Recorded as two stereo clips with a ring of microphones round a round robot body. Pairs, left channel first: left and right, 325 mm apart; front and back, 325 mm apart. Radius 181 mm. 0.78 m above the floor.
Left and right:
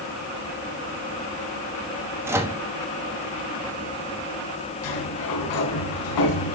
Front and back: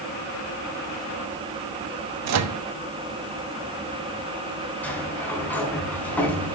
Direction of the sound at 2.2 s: 170° right.